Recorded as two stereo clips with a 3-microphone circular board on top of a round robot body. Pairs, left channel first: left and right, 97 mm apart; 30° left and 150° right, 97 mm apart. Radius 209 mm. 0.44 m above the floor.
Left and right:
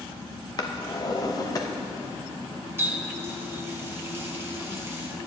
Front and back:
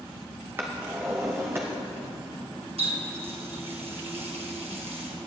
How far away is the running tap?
About 1.9 m.